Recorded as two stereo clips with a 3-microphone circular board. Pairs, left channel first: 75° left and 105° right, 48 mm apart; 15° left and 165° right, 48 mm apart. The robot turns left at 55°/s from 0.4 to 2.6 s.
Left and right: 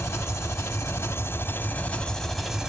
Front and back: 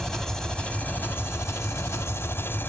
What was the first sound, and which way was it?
An engine running, 95° left.